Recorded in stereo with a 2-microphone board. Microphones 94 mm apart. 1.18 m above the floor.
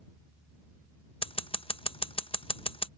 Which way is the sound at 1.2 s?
75° left (ahead or behind).